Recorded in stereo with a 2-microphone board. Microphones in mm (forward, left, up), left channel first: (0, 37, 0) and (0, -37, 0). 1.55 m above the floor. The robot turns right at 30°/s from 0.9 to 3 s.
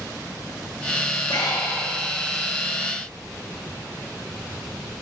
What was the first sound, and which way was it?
Breathing, 70° left (ahead or behind).